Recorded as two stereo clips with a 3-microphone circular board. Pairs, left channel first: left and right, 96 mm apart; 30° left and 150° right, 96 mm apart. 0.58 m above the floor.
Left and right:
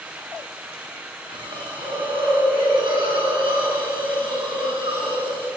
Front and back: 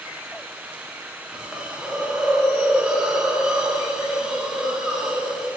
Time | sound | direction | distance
1.3 | a hiss | 70° right | 6.5 m